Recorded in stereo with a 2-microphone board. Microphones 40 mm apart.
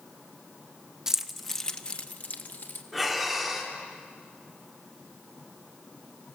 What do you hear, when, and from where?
1.1 s keys jangling: 15° right (ahead or behind), 1.0 m; by 2.8 s 55° left (ahead or behind), 1.7 m
2.9 s breathing: centre (ahead or behind), 2.5 m